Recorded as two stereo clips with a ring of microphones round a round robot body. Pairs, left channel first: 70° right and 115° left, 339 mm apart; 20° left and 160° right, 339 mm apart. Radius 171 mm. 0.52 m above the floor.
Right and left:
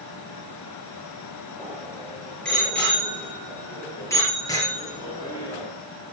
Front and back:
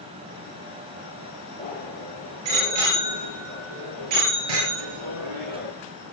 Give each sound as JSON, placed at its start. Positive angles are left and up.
{"t": 1.6, "sound": "a bicycle bell", "azimuth_deg": -155, "distance_m": 9.5}